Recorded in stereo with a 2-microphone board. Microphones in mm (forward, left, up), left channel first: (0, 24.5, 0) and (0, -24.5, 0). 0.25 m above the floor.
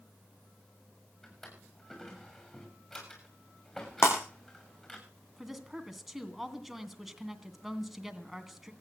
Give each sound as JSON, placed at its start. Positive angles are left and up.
{"t": 1.2, "sound": "a drawer", "side_deg": 5, "distance_m": 6.0}
{"t": 4.0, "sound": "breaking glass", "side_deg": 55, "distance_m": 5.5}
{"t": 5.4, "sound": "a woman speaking", "side_deg": -5, "distance_m": 2.5}